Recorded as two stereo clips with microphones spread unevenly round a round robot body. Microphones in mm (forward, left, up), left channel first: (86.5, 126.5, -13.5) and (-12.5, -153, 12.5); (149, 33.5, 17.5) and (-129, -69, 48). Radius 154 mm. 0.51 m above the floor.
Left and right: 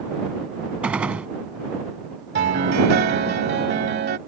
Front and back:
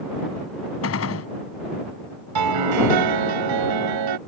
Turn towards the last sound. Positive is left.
turn(degrees=-170)